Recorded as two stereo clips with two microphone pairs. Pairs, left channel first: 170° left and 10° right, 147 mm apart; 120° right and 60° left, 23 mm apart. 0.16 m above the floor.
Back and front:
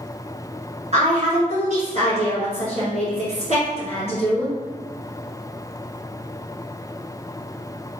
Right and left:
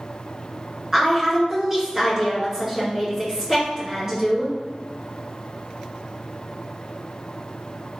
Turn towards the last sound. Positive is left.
turn(degrees=-10)